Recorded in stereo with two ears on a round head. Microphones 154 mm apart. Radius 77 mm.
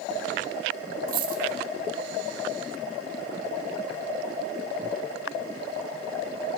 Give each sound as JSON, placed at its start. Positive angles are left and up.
{"t": 1.1, "sound": "a dropped coin", "side_deg": -55, "distance_m": 1.2}